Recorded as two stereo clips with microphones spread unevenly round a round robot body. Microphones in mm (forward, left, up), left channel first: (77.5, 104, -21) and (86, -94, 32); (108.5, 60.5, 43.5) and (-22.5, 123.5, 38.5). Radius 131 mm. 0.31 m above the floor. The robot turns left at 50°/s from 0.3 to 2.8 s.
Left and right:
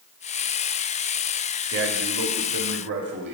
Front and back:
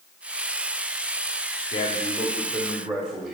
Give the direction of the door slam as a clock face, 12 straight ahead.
No door slam in this recording.